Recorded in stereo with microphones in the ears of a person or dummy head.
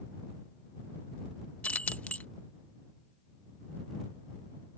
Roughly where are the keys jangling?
Centre.